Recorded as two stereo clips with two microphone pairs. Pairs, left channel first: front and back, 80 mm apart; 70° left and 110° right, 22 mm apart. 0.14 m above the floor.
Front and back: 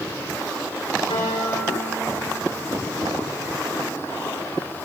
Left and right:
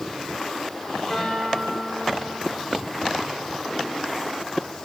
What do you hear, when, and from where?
1.1 s a guitar: straight ahead, 10 m